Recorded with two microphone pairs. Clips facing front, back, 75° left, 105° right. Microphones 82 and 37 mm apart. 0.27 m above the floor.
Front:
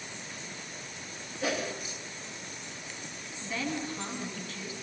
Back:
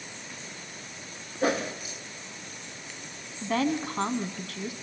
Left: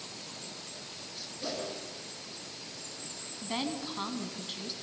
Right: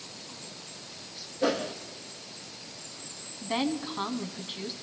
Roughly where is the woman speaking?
Behind.